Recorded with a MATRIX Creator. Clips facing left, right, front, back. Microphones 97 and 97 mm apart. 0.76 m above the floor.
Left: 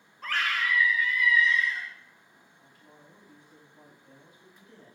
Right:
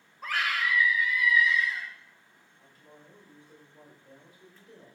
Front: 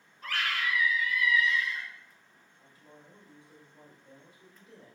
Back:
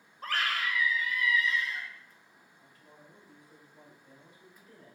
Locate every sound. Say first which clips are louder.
0.2 s a scream: even, even; 165° right, 0.7 m
2.6 s a woman speaking: right 2 dB, front 2 dB; 50° right, 1.3 m